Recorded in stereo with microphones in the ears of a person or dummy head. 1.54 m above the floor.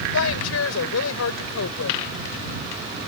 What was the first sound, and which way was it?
A woman speaking, 85° left.